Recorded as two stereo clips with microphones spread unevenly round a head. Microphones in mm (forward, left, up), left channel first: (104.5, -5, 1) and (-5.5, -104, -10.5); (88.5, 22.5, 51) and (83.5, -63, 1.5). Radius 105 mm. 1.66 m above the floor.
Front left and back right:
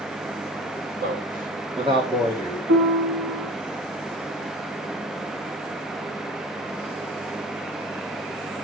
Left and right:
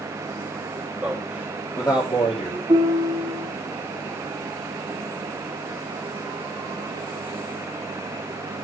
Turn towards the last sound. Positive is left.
turn(degrees=-150)